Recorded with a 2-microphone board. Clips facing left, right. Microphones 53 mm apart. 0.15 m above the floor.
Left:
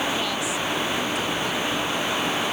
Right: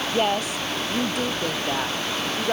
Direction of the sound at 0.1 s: 40° right (ahead or behind).